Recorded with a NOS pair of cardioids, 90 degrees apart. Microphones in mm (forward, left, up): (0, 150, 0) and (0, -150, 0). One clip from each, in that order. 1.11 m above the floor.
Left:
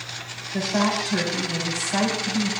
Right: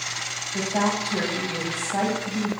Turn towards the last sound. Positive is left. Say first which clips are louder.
# left 2 dB
turn(degrees=45)